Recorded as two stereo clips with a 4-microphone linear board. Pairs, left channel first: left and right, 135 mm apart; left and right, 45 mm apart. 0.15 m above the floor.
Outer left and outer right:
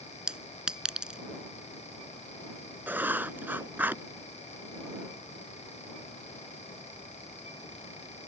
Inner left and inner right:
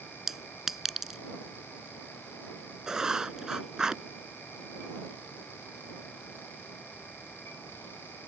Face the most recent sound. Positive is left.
turn(degrees=-15)  # may be behind; listen again after turning